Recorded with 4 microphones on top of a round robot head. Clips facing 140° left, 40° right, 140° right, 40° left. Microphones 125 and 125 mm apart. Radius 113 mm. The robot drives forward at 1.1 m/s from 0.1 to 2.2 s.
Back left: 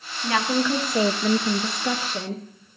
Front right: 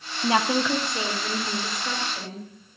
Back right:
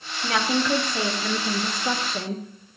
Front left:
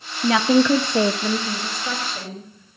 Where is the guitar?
I don't hear a guitar.